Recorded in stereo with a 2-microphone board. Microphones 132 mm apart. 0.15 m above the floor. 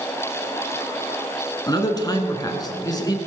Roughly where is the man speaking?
Left.